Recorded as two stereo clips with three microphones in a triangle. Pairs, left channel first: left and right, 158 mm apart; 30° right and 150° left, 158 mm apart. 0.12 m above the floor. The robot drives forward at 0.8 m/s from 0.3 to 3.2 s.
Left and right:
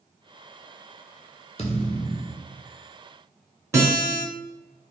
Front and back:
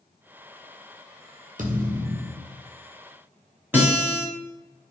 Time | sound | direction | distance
1.6 | a thud | 130° left | 0.9 m
3.7 | a guitar | 140° right | 1.5 m